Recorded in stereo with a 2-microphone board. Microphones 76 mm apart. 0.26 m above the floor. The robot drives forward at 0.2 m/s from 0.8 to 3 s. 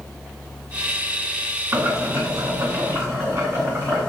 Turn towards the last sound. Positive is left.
turn(degrees=-40)  # may be behind; listen again after turning